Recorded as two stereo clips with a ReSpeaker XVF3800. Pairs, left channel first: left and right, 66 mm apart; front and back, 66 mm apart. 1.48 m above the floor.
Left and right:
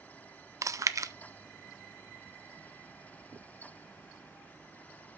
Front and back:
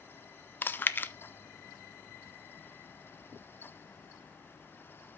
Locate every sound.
0.6 s chewing: 55° right, 0.5 m